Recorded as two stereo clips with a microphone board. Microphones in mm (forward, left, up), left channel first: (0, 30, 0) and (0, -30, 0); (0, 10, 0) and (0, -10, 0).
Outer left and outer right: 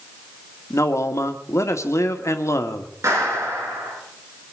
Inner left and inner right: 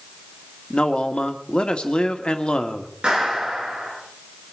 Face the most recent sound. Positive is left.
turn(degrees=-50)  # may be behind; listen again after turning